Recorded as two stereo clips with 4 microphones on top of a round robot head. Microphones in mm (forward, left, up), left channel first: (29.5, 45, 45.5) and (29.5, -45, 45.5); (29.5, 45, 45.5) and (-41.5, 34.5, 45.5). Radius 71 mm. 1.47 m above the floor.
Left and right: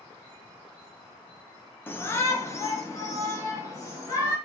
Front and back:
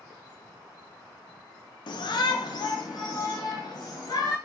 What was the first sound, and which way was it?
A shout, 20° left.